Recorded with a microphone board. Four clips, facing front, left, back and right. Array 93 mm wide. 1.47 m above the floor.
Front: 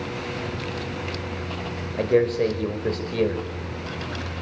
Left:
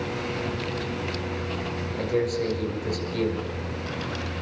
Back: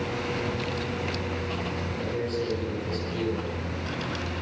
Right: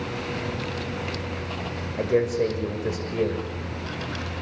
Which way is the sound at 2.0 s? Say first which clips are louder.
Right 4 dB, front 12 dB; 25° right.